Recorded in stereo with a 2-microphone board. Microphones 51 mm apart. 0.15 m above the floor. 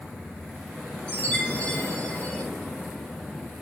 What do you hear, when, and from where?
1.1 s a chime: 25° left (ahead or behind), 5 m